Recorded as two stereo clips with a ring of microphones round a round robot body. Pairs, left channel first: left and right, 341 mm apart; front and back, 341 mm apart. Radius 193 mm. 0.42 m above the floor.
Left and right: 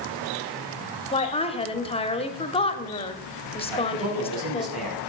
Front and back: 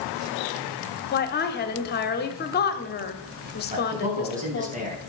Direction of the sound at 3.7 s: 110° right.